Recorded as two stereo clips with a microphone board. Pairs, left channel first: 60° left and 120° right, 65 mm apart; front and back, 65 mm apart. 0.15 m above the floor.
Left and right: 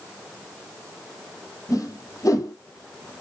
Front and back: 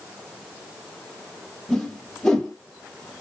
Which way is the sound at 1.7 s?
80° left.